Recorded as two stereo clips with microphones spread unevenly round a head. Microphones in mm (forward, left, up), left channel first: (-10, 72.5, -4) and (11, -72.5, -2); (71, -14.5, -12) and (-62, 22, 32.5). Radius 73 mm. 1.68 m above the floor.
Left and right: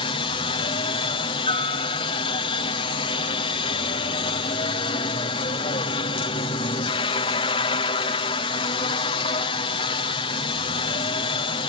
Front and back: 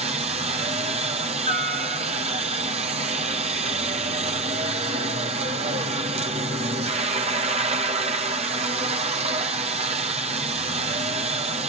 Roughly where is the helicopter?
Behind left.